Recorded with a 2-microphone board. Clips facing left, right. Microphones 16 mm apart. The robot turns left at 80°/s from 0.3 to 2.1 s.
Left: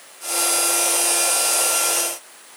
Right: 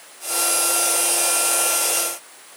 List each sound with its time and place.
Only background noise.